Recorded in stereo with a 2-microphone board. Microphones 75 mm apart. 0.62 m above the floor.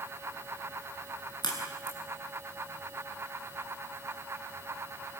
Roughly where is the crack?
Left.